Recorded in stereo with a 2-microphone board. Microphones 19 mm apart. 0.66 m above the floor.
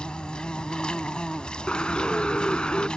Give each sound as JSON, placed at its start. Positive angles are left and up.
{"t": 0.0, "sound": "an insect", "side_deg": 55}
{"t": 1.7, "sound": "a bird", "side_deg": 75}